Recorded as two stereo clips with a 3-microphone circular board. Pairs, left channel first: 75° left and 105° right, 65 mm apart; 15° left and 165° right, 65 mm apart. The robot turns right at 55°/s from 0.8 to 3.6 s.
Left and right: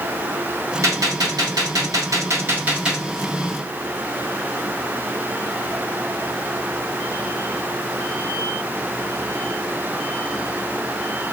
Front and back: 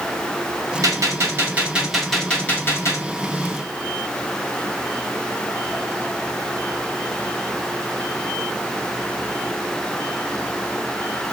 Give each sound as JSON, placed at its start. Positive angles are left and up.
{"t": 0.8, "sound": "a gunshot", "azimuth_deg": -140, "distance_m": 1.1}